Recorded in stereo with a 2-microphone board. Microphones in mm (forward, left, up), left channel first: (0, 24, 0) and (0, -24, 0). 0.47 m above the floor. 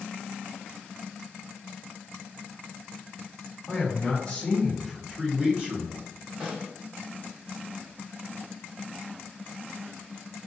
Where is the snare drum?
30° right (ahead or behind), 1.6 m.